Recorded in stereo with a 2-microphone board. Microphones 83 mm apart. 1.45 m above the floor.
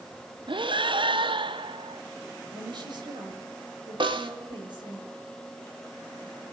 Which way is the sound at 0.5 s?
75° right (ahead or behind).